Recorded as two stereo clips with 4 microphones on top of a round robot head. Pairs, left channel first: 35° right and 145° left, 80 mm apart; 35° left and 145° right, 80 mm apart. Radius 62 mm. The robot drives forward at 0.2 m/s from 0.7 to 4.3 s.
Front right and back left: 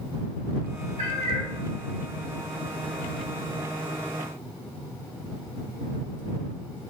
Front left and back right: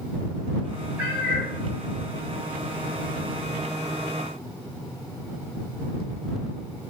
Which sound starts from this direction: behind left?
A cat meowing, at 1.0 s.